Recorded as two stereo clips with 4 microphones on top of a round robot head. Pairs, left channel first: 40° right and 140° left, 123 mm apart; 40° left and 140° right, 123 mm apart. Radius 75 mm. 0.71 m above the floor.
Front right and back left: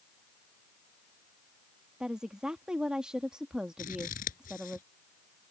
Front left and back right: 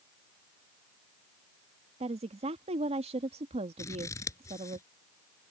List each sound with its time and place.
2.0 s a woman speaking: 135° right
3.8 s scissors: 25° right